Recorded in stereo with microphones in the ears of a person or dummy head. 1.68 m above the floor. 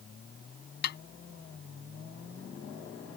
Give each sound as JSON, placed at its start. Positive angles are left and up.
{"t": 0.8, "sound": "a snare drum", "side_deg": 60}